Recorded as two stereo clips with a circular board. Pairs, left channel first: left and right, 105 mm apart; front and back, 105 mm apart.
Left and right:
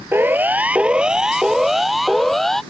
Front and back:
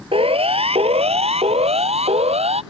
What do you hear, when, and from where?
0.1 s a siren: 160° right; by 2.6 s 175° left